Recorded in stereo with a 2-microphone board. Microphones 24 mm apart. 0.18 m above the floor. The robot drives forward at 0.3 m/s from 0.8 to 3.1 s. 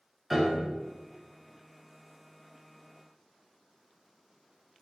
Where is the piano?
10° right (ahead or behind), 0.6 m.